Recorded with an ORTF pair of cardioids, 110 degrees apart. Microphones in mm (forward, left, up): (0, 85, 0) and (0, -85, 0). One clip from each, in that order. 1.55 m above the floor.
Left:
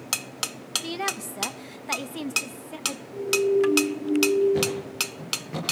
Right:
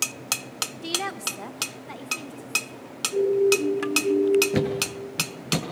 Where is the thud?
70° right, 5 m.